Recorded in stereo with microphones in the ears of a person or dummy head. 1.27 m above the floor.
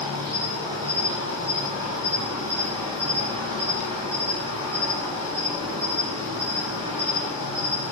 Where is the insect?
25° right (ahead or behind), 0.8 m.